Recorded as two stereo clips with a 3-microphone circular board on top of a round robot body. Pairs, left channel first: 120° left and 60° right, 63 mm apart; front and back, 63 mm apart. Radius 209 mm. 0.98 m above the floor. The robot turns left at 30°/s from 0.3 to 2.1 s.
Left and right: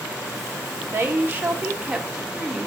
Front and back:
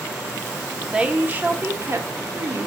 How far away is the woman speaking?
About 0.9 m.